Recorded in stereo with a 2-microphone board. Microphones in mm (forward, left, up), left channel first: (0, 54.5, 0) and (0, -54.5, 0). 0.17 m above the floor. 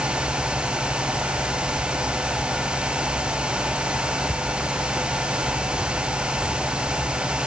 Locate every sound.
Only background noise.